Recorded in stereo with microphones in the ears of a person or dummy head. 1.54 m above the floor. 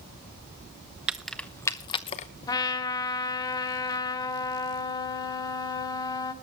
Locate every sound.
1.1 s keys jangling: 10° right (ahead or behind), 0.7 m; by 2.3 s 35° left (ahead or behind), 0.9 m
2.5 s a trumpet: 20° left (ahead or behind), 1.2 m